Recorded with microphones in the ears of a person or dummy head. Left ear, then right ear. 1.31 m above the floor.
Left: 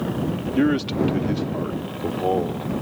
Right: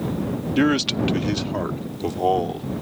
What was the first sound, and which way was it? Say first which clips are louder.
A man speaking: right 1 dB; 40° right (ahead or behind).